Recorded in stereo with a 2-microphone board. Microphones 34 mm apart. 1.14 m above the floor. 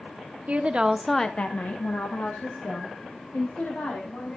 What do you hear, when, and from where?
0.5 s a woman speaking: 40° right (ahead or behind), 0.8 m; by 4.4 s 75° left (ahead or behind), 3.5 m